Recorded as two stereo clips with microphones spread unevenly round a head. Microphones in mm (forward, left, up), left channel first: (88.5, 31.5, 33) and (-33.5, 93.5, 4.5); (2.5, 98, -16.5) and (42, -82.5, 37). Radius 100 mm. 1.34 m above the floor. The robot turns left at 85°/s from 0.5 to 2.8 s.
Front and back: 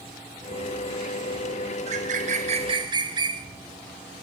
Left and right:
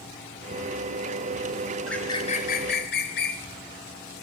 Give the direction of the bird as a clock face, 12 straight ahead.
6 o'clock.